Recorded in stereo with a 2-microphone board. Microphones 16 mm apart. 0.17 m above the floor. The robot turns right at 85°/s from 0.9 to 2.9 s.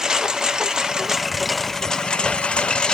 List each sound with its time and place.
0.0 s a lawn mower: 40° right (ahead or behind); by 3.0 s 55° left (ahead or behind)